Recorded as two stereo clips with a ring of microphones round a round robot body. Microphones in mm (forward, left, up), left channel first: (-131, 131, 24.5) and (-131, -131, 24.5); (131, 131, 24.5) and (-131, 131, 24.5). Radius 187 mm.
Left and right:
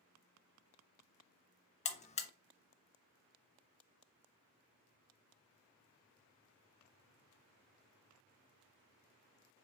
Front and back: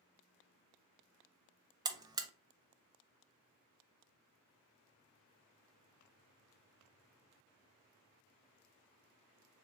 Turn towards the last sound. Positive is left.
turn(degrees=120)